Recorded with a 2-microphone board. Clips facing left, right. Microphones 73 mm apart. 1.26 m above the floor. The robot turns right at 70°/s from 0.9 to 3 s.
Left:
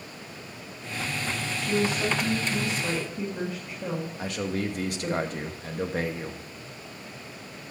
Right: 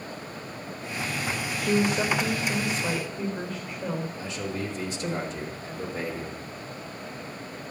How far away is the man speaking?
About 1.3 m.